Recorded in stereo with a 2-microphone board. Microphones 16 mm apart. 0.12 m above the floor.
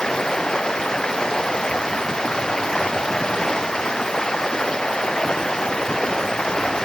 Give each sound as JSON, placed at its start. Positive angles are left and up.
{"t": 0.0, "sound": "running water", "side_deg": 40}